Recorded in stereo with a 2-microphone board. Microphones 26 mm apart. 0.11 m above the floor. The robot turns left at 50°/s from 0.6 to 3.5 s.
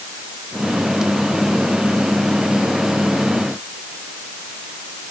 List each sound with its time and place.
Only background noise.